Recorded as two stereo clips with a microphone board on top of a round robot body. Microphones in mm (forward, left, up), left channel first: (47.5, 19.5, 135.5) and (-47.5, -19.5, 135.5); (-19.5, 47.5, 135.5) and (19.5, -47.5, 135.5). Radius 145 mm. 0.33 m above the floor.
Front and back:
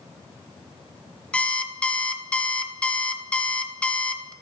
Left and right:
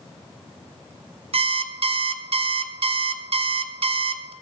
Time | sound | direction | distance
1.3 | an alarm clock | 55° right | 0.5 m